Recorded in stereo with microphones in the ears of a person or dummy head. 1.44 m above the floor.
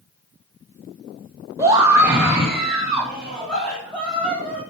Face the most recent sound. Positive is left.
turn(degrees=5)  # may be behind; listen again after turning